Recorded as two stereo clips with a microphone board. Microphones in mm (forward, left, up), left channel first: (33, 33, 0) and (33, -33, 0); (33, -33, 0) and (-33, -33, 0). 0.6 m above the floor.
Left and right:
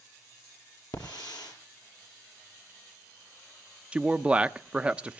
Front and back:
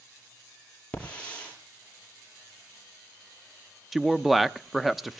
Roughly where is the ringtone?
No ringtone in this recording.